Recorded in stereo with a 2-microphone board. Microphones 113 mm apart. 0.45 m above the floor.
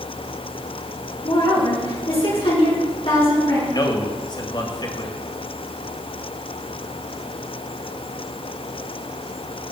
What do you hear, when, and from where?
1.2 s a woman speaking: 50° left (ahead or behind), 6 m
3.7 s a man speaking: 40° left (ahead or behind), 2 m